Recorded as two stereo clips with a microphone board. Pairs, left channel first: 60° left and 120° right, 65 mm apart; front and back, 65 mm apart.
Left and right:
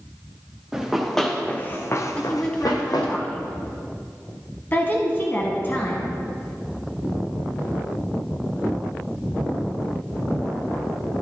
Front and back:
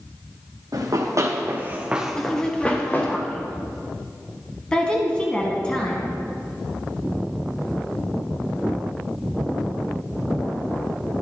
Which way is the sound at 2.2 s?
45° left.